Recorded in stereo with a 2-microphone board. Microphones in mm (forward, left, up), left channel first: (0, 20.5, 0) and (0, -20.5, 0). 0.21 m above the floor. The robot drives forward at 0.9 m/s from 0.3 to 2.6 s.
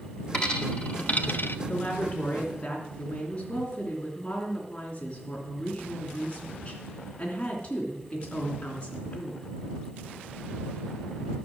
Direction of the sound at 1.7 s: 25° left (ahead or behind).